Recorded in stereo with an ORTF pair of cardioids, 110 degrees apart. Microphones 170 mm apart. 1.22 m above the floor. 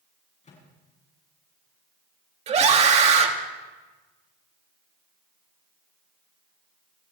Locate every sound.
0.4 s a microwave: 40° left, 8.5 m
2.5 s a scream: 40° right, 2.5 m